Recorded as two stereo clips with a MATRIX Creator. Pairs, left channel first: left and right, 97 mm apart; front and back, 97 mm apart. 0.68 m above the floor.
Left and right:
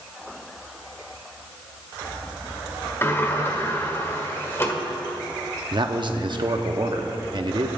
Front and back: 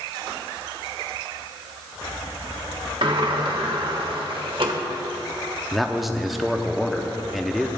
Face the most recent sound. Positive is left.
turn(degrees=-90)